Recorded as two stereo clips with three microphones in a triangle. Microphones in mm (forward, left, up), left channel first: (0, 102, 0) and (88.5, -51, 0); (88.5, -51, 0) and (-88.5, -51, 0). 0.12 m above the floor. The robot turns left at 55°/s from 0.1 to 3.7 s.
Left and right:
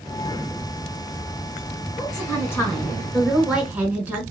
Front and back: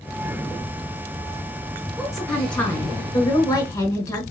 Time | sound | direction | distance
2.0 | a woman speaking | 100° left | 1.7 m